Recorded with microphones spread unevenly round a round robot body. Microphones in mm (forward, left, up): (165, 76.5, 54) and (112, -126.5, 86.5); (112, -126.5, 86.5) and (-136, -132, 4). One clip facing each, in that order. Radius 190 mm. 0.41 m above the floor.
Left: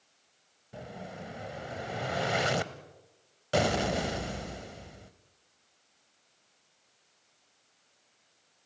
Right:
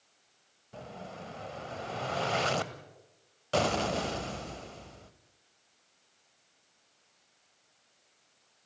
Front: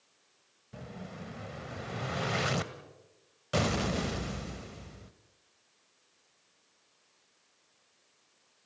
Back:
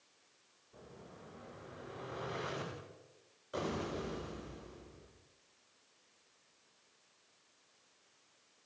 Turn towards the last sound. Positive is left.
turn(degrees=0)